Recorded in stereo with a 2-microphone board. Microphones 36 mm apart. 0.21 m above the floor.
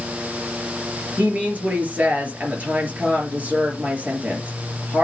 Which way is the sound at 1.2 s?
45° right (ahead or behind).